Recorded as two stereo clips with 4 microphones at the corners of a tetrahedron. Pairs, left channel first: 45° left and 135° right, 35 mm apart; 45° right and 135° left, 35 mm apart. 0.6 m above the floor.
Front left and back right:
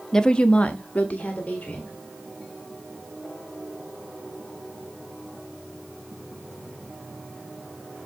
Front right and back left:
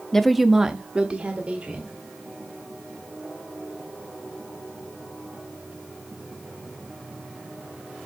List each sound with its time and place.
0.1 s a woman speaking: 5° right, 0.6 m; by 1.9 s 85° left, 1.8 m